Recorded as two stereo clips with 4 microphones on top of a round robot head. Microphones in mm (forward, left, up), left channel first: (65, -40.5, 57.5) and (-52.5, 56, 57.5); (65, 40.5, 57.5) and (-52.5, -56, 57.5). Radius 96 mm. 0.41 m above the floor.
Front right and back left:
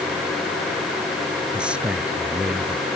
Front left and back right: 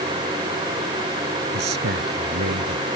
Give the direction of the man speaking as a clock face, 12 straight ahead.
5 o'clock.